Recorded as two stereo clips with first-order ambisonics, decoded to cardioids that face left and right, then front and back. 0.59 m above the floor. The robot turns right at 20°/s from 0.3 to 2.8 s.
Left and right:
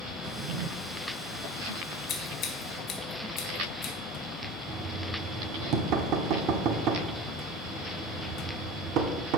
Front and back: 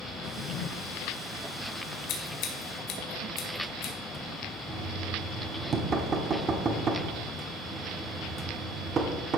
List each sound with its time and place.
0.2 s a drawer: 55° right, 0.6 m; by 0.7 s 45° right, 0.6 m
2.1 s scissors: 25° left, 1.9 m; by 3.9 s 40° left, 1.9 m
4.7 s knocking: 120° right, 1.0 m